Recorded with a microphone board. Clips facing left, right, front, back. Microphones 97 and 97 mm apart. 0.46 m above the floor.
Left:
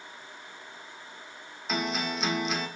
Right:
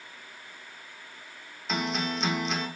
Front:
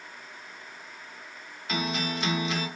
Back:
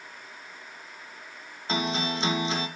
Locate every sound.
1.7 s a guitar: 175° left, 0.7 m